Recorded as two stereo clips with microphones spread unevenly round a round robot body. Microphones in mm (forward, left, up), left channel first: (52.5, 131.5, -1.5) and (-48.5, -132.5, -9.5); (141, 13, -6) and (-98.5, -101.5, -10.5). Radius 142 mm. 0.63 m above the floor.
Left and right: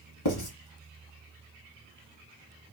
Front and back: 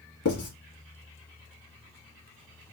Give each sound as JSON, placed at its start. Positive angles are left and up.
{"t": 0.2, "sound": "writing", "azimuth_deg": 75, "distance_m": 1.7}